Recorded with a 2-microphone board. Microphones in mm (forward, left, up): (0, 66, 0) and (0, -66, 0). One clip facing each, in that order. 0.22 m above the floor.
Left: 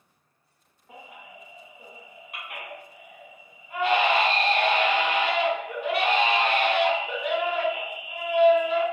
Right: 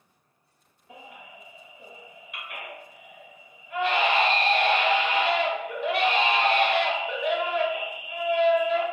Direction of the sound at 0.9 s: 50° left (ahead or behind).